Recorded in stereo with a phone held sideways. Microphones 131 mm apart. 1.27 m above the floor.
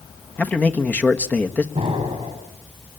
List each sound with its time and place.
0.4 s a man speaking: 10° left (ahead or behind), 1.5 m
1.8 s an explosion: 40° right (ahead or behind), 6.5 m